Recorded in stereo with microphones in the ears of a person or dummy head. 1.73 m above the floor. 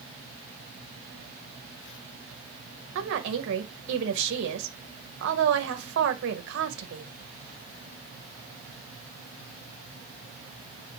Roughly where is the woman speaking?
Right.